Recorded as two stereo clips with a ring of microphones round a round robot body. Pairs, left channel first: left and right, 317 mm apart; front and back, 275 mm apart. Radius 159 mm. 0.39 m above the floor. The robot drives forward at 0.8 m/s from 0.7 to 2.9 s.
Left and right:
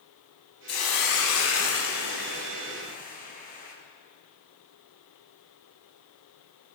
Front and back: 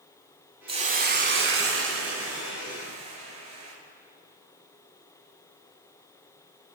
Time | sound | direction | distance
0.7 | a hiss | 110° left | 1.0 m